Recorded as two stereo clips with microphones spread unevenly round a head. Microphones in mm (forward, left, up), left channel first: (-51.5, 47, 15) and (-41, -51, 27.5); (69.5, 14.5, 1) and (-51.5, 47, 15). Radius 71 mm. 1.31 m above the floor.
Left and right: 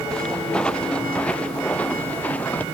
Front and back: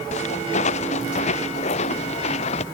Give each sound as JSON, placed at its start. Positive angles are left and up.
{"t": 0.1, "sound": "footsteps", "azimuth_deg": 10}